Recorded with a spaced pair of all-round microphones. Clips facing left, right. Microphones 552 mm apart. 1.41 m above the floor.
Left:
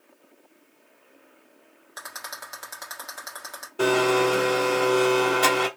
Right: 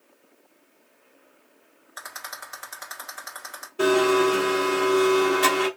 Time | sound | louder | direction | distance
2.0 | a rattle | left 1 dB | 60° left (ahead or behind) | 1.7 m
3.8 | a blender | right 2 dB | 5° left (ahead or behind) | 1.0 m